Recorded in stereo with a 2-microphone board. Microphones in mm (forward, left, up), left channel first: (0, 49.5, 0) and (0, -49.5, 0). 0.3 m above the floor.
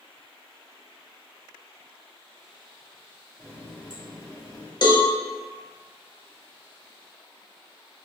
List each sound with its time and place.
3.4 s a running tap: 45° left (ahead or behind), 1.2 m
4.8 s a cowbell: 45° left (ahead or behind), 0.7 m